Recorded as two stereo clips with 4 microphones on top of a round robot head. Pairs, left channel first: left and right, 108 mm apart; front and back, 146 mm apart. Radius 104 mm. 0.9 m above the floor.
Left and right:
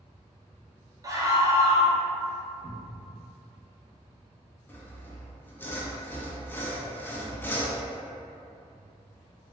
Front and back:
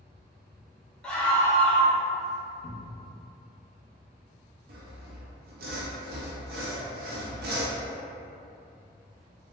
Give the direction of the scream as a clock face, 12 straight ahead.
3 o'clock.